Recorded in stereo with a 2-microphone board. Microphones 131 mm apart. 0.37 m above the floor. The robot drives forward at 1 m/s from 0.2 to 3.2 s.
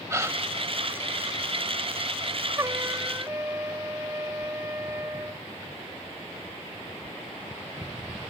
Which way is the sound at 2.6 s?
30° right (ahead or behind).